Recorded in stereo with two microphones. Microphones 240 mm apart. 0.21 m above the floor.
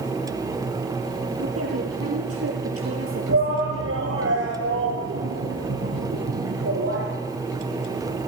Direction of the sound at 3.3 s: 70° right (ahead or behind).